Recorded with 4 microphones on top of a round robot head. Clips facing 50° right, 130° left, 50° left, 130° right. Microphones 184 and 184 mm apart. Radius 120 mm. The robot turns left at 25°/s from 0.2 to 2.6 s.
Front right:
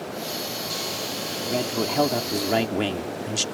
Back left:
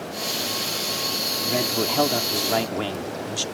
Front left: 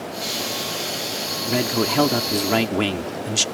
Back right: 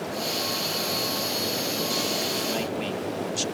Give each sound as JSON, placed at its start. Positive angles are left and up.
{"t": 1.5, "sound": "a man speaking", "azimuth_deg": 50}